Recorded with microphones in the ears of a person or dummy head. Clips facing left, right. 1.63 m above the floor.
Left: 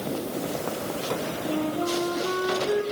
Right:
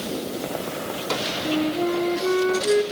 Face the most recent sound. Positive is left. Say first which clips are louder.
# right 5 dB
turn(degrees=-30)  # may be behind; listen again after turning